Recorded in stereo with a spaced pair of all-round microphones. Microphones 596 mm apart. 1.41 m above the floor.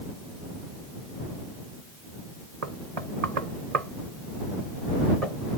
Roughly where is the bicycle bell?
No bicycle bell in this recording.